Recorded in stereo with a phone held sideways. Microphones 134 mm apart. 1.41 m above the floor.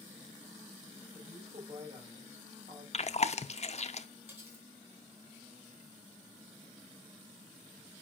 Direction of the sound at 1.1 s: 60° right (ahead or behind).